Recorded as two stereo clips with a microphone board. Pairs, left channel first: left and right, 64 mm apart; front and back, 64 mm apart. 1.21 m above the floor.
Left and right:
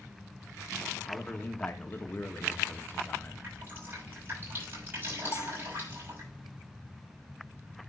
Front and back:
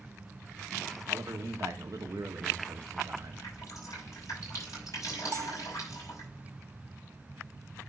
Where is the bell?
140° left, 0.7 m.